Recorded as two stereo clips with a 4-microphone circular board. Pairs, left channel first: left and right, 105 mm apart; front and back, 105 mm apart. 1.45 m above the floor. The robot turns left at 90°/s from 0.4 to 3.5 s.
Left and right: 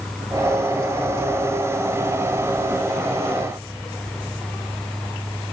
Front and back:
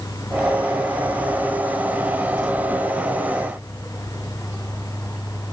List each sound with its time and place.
Only background noise.